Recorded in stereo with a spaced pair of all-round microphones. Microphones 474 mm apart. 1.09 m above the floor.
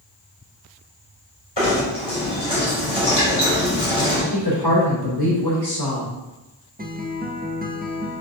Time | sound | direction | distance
1.6 | knocking | 60° left (ahead or behind) | 3 m
4.3 | a woman speaking | 50° left (ahead or behind) | 3 m
6.8 | a guitar | 20° right (ahead or behind) | 0.7 m